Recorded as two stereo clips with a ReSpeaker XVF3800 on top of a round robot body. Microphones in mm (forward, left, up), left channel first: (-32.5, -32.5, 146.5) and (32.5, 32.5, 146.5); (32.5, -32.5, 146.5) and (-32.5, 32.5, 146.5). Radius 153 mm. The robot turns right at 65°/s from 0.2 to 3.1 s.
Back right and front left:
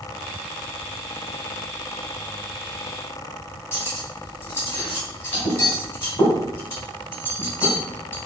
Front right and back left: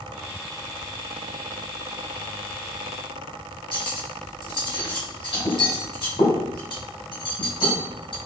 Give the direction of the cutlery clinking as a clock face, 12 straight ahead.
2 o'clock.